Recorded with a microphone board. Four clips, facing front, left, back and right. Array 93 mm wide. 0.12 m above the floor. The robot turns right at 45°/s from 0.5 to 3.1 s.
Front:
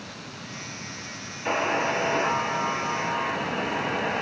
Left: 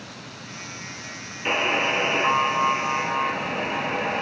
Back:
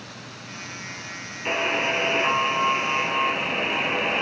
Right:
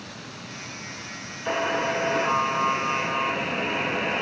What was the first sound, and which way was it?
A buzzer, 110° left.